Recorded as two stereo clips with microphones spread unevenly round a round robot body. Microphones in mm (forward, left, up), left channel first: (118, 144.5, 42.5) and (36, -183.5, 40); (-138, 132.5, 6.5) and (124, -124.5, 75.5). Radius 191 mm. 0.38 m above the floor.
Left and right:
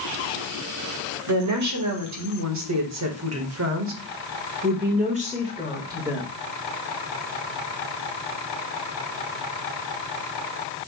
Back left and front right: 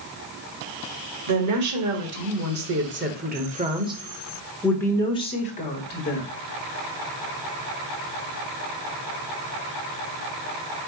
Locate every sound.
1.3 s a woman speaking: 85° right, 2.5 m; by 6.3 s 175° left, 1.9 m